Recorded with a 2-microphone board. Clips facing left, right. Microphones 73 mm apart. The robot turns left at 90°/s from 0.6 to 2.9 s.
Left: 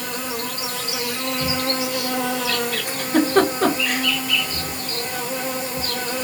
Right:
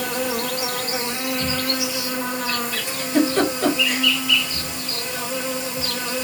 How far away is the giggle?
About 1.6 m.